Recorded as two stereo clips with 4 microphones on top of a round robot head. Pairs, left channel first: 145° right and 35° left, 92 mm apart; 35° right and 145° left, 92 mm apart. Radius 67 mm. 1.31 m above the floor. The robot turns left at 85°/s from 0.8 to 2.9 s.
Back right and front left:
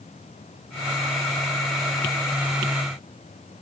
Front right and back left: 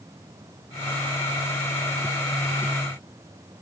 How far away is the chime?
I don't hear a chime.